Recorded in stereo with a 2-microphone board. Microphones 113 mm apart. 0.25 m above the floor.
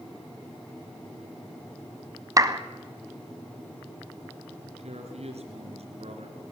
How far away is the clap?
About 1.2 m.